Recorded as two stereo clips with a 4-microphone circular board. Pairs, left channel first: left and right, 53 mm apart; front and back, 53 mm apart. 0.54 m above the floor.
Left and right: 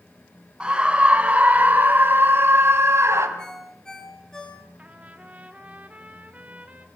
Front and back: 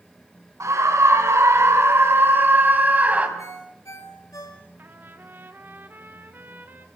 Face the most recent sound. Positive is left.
turn(degrees=-145)